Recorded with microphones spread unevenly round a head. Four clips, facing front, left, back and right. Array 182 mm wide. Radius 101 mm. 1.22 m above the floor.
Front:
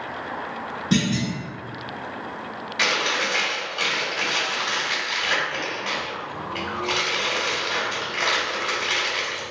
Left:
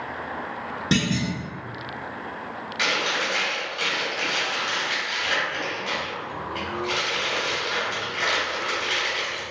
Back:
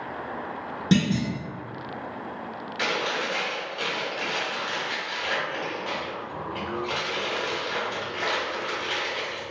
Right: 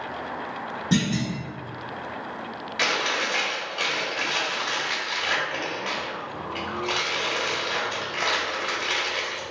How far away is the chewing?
About 1.1 m.